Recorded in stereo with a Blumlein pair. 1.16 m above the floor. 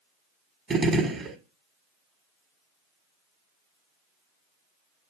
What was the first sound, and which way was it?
A gunshot, 15° right.